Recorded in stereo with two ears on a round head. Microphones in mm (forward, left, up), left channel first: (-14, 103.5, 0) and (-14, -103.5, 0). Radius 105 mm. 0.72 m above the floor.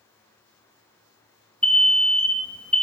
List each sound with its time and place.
1.6 s an alarm: 5° left (ahead or behind), 0.9 m